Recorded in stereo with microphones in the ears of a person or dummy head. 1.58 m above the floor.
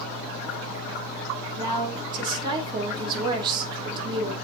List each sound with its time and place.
1.6 s a woman speaking: 15° right (ahead or behind), 2.5 m